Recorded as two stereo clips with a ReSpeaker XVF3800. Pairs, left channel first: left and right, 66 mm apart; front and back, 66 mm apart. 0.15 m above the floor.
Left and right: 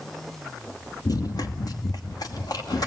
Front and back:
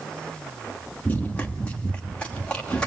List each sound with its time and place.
1.1 s running footsteps: 65° left, 1.2 m; by 2.9 s 75° left, 2.5 m